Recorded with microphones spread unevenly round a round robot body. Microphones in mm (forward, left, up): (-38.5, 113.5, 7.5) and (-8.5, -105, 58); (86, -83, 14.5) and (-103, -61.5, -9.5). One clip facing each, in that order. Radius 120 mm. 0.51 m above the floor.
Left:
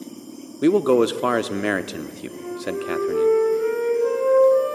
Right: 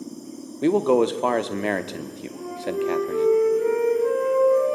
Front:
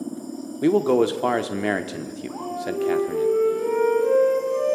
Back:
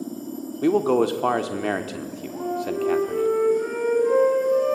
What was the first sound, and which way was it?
A man speaking, 75° left.